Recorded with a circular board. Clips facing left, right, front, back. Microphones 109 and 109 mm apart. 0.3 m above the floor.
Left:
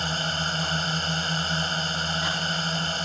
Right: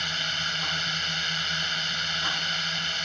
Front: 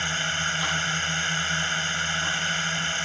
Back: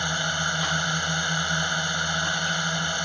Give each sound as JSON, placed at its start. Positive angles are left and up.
{"t": 0.0, "sound": "a drone", "azimuth_deg": 120}